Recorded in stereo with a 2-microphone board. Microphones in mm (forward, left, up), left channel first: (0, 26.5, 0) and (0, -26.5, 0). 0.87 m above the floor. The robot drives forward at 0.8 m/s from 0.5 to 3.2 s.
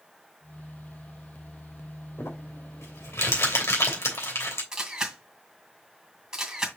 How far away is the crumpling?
About 3 m.